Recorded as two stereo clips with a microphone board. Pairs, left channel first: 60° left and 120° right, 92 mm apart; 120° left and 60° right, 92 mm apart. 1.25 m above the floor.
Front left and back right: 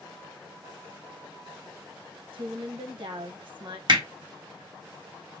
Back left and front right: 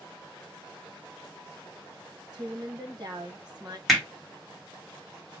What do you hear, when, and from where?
2.3 s a woman speaking: 100° right, 1.3 m
3.9 s hammering: 150° right, 1.2 m